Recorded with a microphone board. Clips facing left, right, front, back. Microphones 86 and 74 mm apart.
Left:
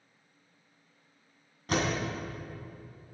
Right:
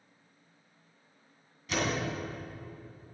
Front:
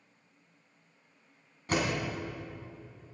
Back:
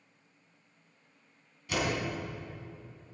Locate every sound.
1.7 s a door slam: 45° left, 3.5 m